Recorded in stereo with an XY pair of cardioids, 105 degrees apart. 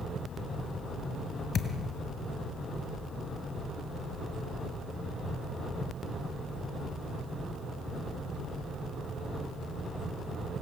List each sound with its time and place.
1.5 s a thud: 50° left, 2.5 m